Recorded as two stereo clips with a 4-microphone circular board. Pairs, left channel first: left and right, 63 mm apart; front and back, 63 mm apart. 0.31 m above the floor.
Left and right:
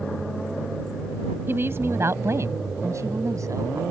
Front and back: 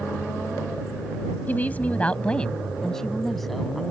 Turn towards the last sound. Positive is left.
turn(degrees=-90)